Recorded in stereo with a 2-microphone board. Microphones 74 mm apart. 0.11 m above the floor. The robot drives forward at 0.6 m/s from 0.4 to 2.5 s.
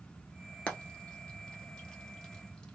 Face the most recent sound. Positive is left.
turn(degrees=10)  # may be behind; listen again after turning